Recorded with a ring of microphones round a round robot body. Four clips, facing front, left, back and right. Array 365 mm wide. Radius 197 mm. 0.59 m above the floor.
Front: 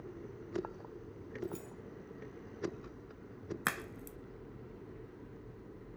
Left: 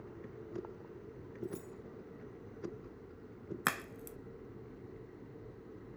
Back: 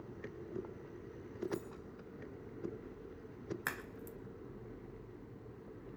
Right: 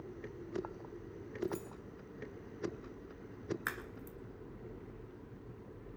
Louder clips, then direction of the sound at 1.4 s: Right 4 dB, back 3 dB; 5° right.